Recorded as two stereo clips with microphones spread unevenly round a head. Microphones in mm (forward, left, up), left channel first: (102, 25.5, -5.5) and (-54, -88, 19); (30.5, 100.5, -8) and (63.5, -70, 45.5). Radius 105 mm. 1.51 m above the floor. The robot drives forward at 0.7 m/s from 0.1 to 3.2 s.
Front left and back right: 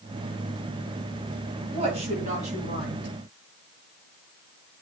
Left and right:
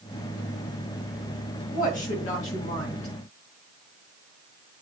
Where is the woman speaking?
150° left, 1.9 m; by 3.1 s 160° left, 3 m.